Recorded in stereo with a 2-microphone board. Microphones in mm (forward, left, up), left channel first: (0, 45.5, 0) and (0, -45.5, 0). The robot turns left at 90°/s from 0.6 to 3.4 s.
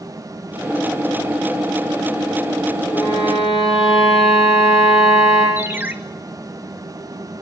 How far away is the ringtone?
About 1.6 m.